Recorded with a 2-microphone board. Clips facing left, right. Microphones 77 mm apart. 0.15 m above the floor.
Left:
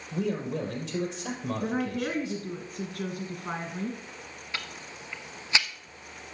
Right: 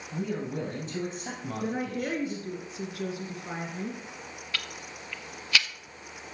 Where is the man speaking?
70° left (ahead or behind), 3.5 m.